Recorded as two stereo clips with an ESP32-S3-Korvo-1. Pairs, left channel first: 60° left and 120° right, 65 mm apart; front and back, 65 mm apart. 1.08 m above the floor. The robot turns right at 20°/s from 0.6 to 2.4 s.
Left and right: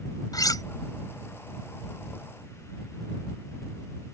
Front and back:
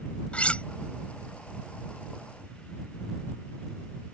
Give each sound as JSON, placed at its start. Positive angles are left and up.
{"t": 0.3, "sound": "cutlery clinking", "azimuth_deg": 70}